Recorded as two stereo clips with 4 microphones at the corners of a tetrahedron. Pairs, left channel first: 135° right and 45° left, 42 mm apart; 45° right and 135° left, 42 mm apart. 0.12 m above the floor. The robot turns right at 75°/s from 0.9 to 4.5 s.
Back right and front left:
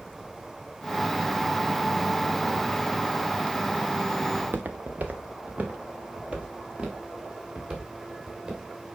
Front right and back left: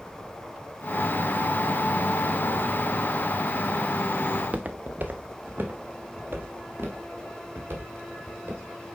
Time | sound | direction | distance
4.3 | footsteps | 65° left | 0.8 m